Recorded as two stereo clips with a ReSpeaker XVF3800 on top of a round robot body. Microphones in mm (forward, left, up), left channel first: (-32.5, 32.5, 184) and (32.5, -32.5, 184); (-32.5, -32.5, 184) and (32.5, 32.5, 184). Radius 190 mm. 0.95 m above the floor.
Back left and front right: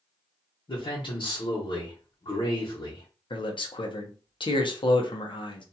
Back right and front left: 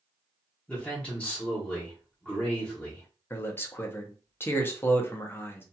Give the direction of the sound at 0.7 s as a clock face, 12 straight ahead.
7 o'clock.